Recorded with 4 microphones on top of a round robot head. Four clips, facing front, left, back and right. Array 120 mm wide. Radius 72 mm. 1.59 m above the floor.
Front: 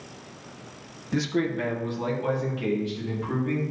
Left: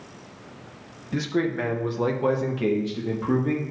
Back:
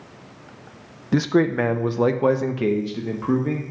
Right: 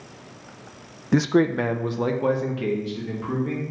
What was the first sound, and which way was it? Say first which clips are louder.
A man speaking: right 6 dB, back 7 dB; 125° right.